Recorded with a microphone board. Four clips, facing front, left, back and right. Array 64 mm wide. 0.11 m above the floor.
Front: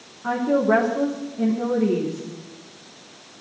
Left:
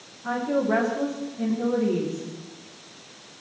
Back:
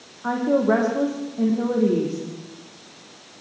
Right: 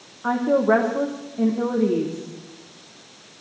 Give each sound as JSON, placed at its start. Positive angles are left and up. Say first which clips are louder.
{"t": 0.2, "sound": "a woman speaking", "louder": "right 6 dB, even", "azimuth_deg": -110, "distance_m": 5.0}